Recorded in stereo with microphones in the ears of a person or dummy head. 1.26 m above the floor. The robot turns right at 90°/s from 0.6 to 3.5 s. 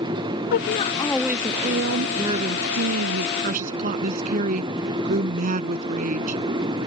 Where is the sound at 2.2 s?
165° right; by 6.4 s 45° right.